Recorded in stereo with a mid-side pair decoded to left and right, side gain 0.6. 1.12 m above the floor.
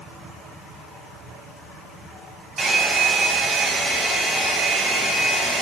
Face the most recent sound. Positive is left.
turn(degrees=-30)